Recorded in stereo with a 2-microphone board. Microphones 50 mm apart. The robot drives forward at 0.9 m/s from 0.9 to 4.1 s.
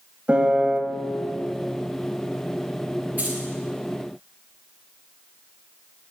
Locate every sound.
0.3 s a piano: 30° right (ahead or behind), 1.0 m
3.2 s keys jangling: 30° right (ahead or behind), 4 m; by 3.4 s 35° right (ahead or behind), 3.5 m